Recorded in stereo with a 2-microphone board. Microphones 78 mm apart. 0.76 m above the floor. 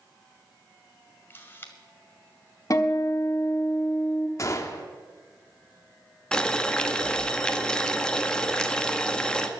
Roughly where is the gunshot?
Left.